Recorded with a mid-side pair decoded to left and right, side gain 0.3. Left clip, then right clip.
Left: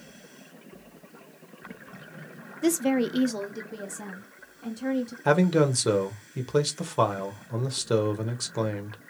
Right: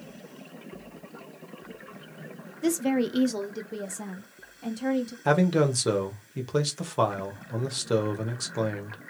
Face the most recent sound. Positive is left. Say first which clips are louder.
# left 1 dB
turn(degrees=5)